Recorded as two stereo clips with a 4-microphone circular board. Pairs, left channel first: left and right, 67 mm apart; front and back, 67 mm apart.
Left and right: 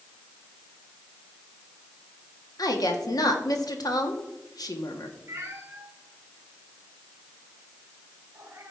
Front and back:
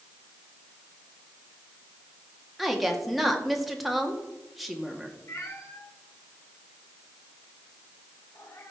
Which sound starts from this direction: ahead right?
A cat meowing, at 5.3 s.